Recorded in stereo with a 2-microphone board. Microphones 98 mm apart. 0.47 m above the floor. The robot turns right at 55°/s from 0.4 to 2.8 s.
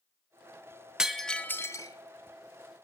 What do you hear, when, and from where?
1.0 s breaking glass: 5° right (ahead or behind), 1.3 m; by 2.9 s 75° left (ahead or behind), 1.3 m